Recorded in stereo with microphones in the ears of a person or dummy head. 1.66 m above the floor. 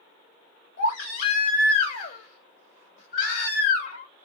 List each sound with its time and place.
0.8 s a baby crying: 70° left (ahead or behind), 2.5 m